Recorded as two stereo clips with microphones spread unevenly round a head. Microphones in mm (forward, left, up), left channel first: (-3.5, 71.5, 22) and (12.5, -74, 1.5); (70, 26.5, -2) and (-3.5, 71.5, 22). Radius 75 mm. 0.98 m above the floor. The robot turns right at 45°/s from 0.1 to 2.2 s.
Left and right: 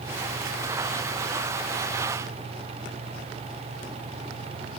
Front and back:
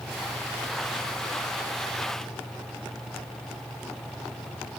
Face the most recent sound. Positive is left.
No sound to turn to.